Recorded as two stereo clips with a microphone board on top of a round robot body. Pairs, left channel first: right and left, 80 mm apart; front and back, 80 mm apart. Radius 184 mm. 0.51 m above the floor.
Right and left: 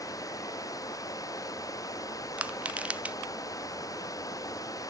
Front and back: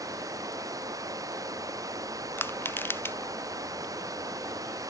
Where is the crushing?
30° left.